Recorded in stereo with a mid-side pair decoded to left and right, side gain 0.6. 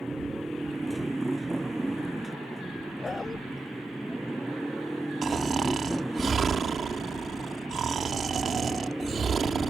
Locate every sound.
0.0 s a motorcycle: 5° right; by 9.7 s straight ahead
3.0 s a dog barking: 25° left
5.2 s snoring: 35° right